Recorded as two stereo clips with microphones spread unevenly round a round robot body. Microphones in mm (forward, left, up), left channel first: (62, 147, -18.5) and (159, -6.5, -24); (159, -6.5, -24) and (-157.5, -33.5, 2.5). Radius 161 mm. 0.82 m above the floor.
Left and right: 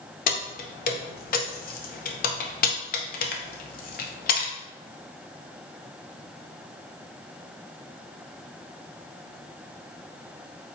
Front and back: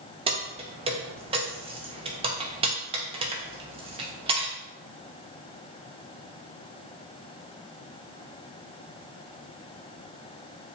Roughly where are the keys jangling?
Left.